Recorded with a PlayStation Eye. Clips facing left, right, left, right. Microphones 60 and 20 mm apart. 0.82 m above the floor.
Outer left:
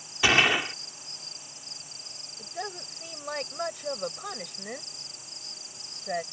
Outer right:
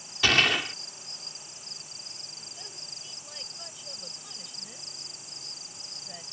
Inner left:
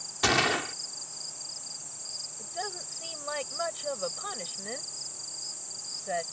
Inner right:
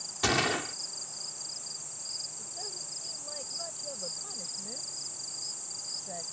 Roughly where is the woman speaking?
Left.